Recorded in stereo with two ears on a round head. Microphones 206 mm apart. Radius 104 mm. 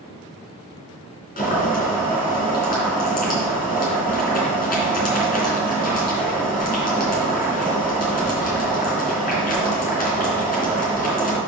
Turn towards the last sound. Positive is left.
turn(degrees=40)  # may be behind; listen again after turning